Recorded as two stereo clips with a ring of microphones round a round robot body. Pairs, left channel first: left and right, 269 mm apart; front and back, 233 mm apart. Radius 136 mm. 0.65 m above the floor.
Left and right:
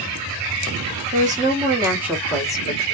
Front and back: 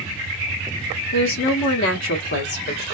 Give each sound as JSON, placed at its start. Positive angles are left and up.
{"t": 1.1, "sound": "a woman speaking", "azimuth_deg": -35, "distance_m": 1.3}